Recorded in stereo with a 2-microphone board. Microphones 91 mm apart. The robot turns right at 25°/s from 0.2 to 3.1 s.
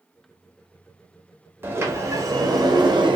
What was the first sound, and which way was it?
A sliding door, 155° right.